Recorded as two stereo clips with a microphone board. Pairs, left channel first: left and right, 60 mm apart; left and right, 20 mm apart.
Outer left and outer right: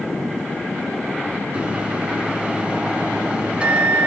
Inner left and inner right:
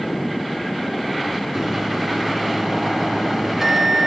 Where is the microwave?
20° right (ahead or behind), 1.1 m.